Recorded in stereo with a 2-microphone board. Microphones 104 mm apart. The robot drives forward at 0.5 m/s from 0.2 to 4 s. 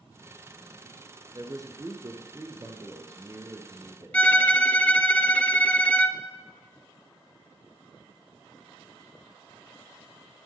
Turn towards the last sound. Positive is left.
turn(degrees=15)  # may be behind; listen again after turning